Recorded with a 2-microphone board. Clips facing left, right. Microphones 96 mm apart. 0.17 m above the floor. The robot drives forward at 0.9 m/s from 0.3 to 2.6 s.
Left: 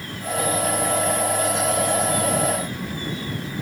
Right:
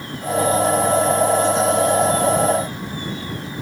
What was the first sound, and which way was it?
Only background noise.